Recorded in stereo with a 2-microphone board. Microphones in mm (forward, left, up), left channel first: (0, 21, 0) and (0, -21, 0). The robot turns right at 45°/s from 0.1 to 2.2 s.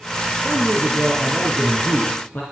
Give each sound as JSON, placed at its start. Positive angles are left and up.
{"t": 0.4, "sound": "a man speaking", "azimuth_deg": -30, "distance_m": 3.0}